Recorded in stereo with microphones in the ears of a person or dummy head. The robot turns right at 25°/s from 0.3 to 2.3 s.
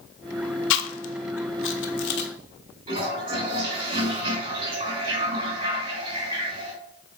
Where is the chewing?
70° left (ahead or behind), 0.8 m; by 2.3 s 55° left (ahead or behind), 0.8 m.